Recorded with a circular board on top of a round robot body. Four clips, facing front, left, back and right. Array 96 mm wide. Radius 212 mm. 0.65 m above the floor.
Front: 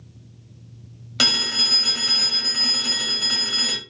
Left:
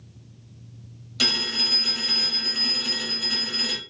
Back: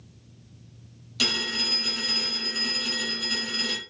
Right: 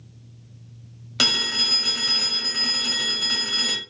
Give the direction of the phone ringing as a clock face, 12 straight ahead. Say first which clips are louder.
Right 2 dB, front 3 dB; 1 o'clock.